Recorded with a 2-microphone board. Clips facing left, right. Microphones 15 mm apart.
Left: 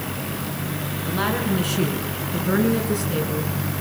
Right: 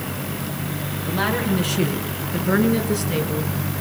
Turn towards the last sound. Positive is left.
turn(degrees=-20)  # may be behind; listen again after turning